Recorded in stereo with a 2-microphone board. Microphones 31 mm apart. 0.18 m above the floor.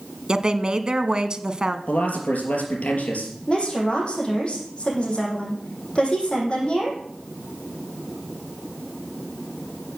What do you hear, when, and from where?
0.3 s a woman speaking: 25° right (ahead or behind), 1.3 m
1.9 s a man speaking: 50° left (ahead or behind), 4.5 m
3.5 s a woman speaking: 30° left (ahead or behind), 6 m